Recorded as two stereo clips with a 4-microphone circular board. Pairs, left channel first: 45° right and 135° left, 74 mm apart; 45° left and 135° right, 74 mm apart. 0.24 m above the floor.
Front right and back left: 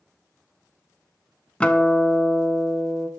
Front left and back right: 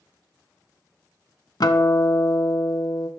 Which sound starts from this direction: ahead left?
A guitar, at 1.6 s.